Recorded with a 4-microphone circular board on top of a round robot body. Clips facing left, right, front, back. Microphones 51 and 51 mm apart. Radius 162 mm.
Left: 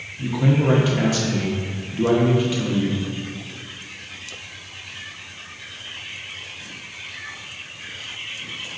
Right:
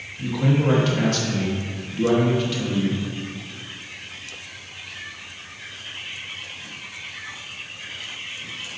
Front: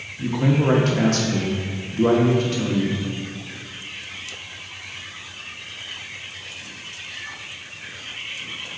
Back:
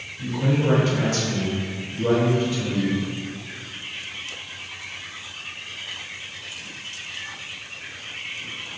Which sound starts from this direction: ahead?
A man speaking, at 0.2 s.